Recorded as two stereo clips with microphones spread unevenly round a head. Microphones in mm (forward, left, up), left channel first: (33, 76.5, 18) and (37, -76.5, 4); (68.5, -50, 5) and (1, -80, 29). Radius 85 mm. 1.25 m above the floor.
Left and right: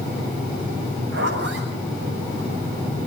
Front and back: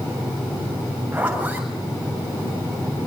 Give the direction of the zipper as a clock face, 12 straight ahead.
3 o'clock.